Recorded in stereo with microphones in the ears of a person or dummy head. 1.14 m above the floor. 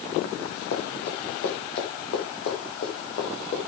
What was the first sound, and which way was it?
Running footsteps, 65° left (ahead or behind).